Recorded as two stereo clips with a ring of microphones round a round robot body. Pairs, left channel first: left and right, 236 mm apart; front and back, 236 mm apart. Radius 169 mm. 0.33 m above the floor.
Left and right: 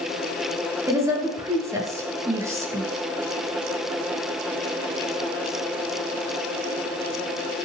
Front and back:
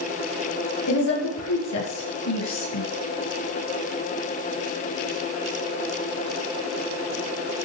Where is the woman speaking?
15° right, 6.5 m.